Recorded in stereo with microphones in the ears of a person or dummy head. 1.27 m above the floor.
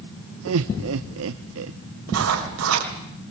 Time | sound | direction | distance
0.5 | laughter | 70° right (ahead or behind) | 0.8 m
2.1 | writing | 85° right | 4.5 m